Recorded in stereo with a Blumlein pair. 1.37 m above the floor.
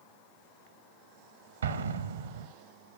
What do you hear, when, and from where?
1.6 s an explosion: 70° right, 0.8 m